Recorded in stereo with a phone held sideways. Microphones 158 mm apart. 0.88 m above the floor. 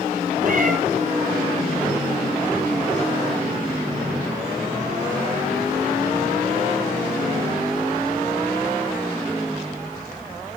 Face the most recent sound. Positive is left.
turn(degrees=-60)  # may be behind; listen again after turning